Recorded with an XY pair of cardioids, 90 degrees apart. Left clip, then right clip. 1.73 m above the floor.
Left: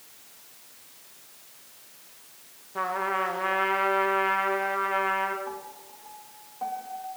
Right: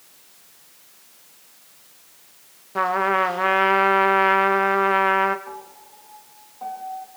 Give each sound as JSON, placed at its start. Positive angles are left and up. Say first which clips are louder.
{"t": 2.8, "sound": "a trumpet", "louder": "right 8 dB", "azimuth_deg": -60, "distance_m": 1.0}
{"t": 5.5, "sound": "a piano", "louder": "even", "azimuth_deg": 15, "distance_m": 3.0}